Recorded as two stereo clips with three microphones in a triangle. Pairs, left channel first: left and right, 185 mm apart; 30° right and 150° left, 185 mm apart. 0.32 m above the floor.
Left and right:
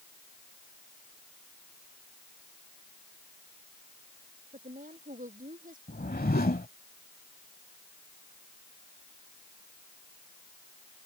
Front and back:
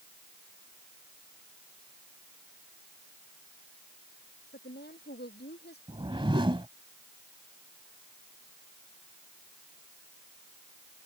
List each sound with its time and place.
4.5 s a woman speaking: 50° right
5.9 s a whoosh: 95° left